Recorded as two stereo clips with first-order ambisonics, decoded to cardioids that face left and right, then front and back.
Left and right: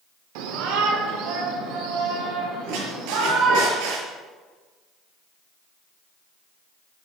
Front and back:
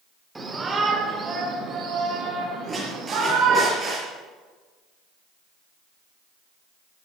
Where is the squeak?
105° right, 6 m.